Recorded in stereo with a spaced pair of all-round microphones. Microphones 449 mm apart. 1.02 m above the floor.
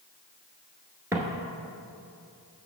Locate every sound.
1.1 s footsteps: 5° right (ahead or behind), 1.0 m